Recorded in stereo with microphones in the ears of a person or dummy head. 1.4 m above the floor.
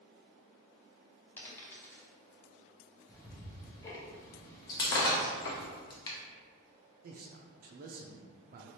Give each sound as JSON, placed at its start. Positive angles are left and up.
{"t": 1.4, "sound": "a dropped coin", "side_deg": 15, "distance_m": 0.9}
{"t": 3.1, "sound": "ticking", "side_deg": 20, "distance_m": 1.0}
{"t": 4.7, "sound": "breaking glass", "side_deg": 20, "distance_m": 0.7}
{"t": 7.0, "sound": "a man speaking", "side_deg": -50, "distance_m": 0.6}